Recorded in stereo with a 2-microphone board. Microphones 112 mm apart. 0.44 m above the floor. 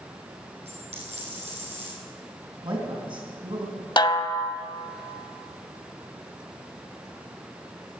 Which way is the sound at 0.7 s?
85° right.